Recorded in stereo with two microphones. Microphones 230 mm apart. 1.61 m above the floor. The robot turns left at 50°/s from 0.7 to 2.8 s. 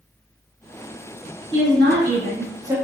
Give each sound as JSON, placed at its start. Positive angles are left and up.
{"t": 1.5, "sound": "a woman speaking", "azimuth_deg": -105, "distance_m": 1.0}